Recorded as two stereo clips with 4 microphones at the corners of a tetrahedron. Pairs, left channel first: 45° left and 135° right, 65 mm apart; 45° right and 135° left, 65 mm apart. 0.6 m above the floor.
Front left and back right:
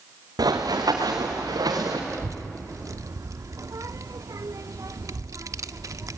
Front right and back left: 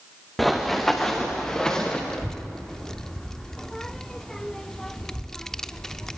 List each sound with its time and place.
0.4 s running footsteps: 135° right, 3 m; by 2.0 s 120° right, 4.5 m
2.1 s a child speaking: 125° right, 0.7 m